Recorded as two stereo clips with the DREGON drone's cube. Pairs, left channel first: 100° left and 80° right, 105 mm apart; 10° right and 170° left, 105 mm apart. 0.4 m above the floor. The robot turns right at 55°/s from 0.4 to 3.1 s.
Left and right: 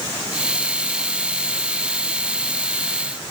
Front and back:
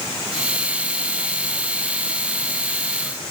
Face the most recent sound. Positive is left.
No sound to turn to.